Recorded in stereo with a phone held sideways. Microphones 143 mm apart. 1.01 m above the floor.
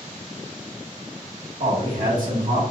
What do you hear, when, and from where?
1.6 s a man speaking: 70° right (ahead or behind), 1.3 m